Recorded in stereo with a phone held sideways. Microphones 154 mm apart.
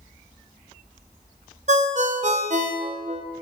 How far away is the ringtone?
About 0.6 m.